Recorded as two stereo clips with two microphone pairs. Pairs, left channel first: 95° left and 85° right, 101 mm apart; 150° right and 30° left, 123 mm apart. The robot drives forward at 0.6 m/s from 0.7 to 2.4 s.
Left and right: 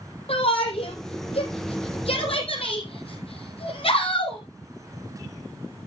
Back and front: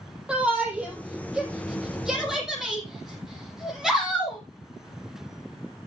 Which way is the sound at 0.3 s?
110° left.